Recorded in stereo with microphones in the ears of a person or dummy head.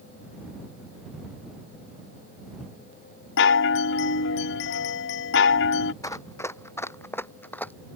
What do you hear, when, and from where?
3.4 s a chime: 70° left (ahead or behind)
6.0 s running footsteps: 15° left (ahead or behind); by 7.7 s 10° left (ahead or behind)